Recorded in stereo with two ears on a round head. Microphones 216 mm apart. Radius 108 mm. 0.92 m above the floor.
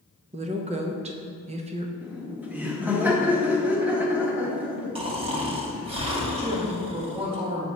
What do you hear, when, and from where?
0.3 s a woman speaking: 25° right (ahead or behind), 0.7 m
2.0 s laughter: 5° right (ahead or behind), 1.1 m
5.0 s snoring: 25° right (ahead or behind), 1.0 m
6.4 s a woman speaking: 25° right (ahead or behind), 1.8 m